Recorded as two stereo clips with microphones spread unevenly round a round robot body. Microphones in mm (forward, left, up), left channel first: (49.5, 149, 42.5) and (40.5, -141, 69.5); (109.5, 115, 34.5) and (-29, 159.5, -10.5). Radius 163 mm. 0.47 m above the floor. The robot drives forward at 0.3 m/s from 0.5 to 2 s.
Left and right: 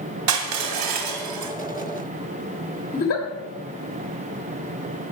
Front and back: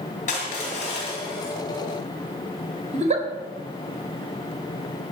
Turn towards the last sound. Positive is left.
turn(degrees=140)